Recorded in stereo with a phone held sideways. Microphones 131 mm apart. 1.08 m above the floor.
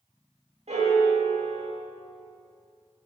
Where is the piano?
50° right (ahead or behind), 1.9 m.